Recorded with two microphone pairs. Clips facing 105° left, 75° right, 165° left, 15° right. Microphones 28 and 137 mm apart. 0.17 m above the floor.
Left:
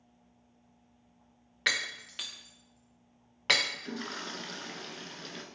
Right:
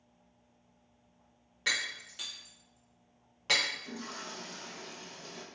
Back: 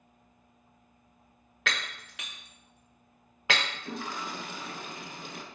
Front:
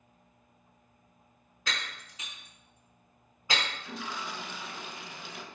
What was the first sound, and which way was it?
Breaking glass, 155° left.